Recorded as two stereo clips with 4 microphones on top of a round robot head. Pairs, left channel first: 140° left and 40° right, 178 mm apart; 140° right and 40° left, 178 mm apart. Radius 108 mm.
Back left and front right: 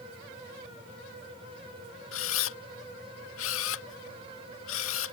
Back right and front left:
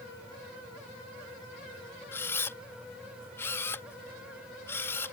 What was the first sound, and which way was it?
A camera shutter, 140° left.